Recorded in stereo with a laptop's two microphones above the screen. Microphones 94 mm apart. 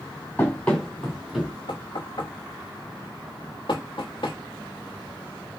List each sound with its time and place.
0.4 s running footsteps: 15° left (ahead or behind), 2.5 m; by 1.5 s 5° right (ahead or behind), 2 m
1.7 s knocking: 65° left (ahead or behind), 1.0 m